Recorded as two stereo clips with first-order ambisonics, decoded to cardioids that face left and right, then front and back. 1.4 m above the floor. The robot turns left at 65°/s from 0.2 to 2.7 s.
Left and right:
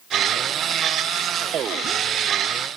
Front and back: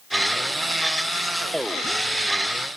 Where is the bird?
No bird in this recording.